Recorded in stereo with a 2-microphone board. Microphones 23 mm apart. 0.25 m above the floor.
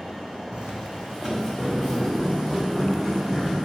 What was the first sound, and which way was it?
Footsteps, 50° right (ahead or behind).